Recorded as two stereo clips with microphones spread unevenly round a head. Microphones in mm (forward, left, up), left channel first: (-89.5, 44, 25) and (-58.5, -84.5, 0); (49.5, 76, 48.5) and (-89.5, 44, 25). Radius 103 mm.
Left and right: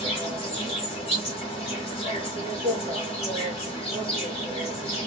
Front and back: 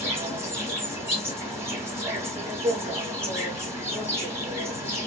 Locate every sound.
0.0 s an insect: 115° left, 1.4 m